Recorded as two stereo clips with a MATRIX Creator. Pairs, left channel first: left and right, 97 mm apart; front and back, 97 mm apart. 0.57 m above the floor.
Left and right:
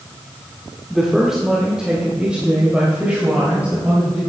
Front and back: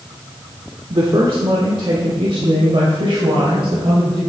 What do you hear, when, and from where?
0.9 s a woman speaking: straight behind, 1.0 m; by 4.2 s 165° right, 3 m